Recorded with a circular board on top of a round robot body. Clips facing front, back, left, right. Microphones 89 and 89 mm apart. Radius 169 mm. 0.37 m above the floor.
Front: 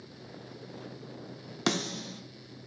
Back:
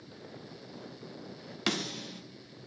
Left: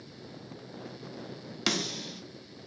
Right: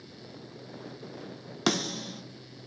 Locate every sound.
1.7 s a snare drum: 50° right, 1.6 m